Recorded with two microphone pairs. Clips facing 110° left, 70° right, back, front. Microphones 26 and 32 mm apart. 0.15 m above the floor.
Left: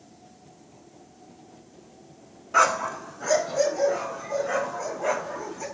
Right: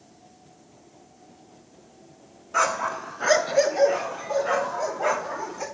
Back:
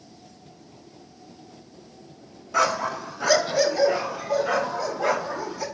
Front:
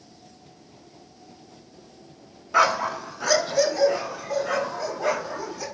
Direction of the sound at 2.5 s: 45° left.